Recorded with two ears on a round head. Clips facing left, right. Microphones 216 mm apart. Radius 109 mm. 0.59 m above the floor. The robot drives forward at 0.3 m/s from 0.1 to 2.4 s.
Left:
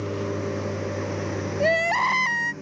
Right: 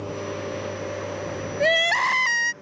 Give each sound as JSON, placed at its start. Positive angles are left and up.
{"t": 0.0, "sound": "a lawn mower", "side_deg": 30}
{"t": 1.6, "sound": "crying", "side_deg": -25}